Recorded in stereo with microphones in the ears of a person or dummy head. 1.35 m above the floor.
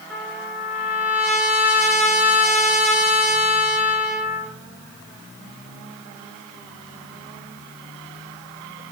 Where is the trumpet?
5° right (ahead or behind), 1.1 m.